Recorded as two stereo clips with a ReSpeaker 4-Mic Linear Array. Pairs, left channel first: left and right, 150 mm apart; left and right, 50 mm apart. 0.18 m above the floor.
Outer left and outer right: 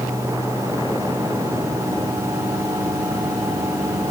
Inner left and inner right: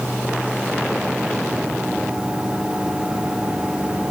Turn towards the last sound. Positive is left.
No sound to turn to.